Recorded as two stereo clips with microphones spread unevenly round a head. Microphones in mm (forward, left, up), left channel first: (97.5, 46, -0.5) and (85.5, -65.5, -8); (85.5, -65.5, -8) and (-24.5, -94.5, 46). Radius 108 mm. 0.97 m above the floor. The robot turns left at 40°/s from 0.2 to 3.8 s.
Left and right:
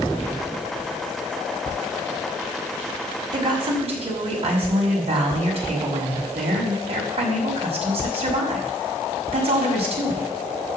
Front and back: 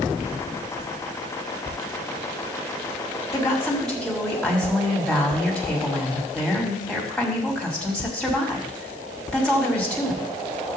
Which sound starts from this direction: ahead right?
A woman speaking, at 3.3 s.